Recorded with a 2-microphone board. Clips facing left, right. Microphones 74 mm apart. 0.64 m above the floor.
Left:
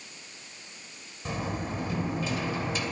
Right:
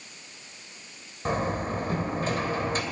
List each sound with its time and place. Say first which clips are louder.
1.2 s a door slam: right 5 dB; 40° right (ahead or behind), 2.5 m